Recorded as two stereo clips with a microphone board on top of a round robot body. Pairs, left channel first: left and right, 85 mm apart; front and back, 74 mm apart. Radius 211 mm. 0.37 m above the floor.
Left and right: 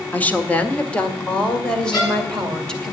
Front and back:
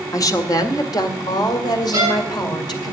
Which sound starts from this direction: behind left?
A violin, at 1.9 s.